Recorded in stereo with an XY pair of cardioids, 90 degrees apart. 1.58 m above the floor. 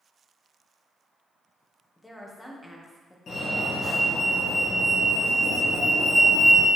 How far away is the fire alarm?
About 2.5 m.